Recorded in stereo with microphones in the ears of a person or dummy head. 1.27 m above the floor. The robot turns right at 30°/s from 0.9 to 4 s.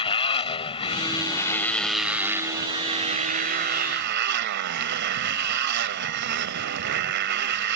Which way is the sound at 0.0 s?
150° left.